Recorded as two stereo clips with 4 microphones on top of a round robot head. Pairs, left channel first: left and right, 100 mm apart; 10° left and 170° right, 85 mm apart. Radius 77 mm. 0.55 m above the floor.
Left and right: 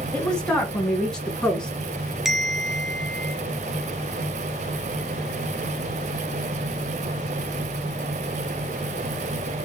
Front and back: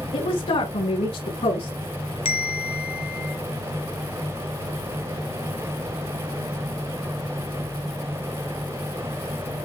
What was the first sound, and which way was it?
A woman speaking, 10° left.